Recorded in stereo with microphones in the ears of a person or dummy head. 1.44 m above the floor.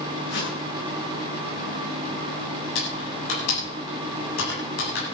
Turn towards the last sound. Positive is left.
turn(degrees=85)